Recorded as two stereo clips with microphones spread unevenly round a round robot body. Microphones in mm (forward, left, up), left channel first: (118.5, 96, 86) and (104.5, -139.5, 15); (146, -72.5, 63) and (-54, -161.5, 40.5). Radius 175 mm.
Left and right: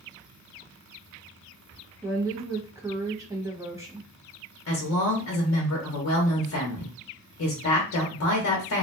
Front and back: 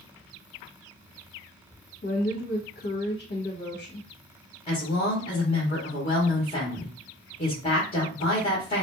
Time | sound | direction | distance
2.0 | a woman speaking | 25° right | 1.1 m
4.7 | a woman speaking | 85° left | 0.8 m